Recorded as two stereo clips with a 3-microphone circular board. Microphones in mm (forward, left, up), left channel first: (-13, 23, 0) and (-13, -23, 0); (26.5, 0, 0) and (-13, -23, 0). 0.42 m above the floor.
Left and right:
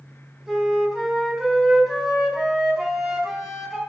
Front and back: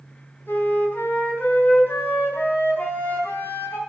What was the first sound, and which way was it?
A flute, 10° right.